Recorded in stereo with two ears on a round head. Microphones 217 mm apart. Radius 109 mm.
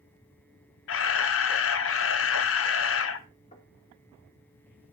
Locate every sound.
0.9 s a camera shutter: 55° left (ahead or behind), 1.0 m
3.5 s knocking: 25° left (ahead or behind), 3.5 m